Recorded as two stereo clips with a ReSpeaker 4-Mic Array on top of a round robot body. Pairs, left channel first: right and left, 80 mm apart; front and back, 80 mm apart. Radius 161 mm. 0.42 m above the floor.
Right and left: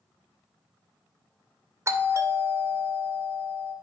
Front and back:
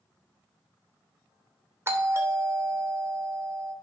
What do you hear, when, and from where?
1.9 s a doorbell: 135° left, 2 m